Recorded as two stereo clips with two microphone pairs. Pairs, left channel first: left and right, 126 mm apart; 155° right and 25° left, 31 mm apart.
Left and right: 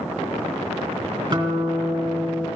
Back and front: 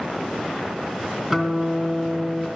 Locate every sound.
1.3 s a guitar: 40° right, 2.5 m